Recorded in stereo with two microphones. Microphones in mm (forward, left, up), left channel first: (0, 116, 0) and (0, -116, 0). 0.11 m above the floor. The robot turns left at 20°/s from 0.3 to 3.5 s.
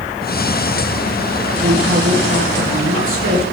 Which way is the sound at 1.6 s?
60° right.